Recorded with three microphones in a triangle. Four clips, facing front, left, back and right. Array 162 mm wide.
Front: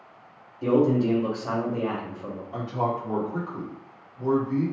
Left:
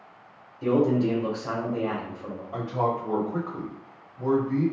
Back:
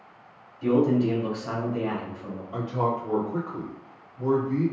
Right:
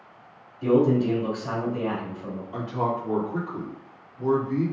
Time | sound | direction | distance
0.6 | a man speaking | 25° left | 1.3 m
2.5 | a man speaking | 105° left | 1.8 m